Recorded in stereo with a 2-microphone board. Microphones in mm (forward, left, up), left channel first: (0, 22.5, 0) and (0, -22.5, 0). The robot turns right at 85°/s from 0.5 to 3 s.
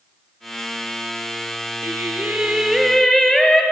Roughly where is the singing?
Right.